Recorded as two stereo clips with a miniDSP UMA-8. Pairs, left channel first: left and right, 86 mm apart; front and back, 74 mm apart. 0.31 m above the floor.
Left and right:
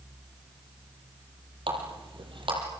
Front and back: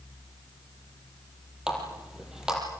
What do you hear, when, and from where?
1.7 s a running tap: 100° right, 6.5 m